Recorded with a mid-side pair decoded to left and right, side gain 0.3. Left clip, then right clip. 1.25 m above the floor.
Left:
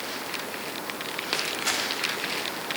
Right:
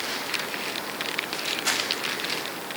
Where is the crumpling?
15° right, 4.5 m.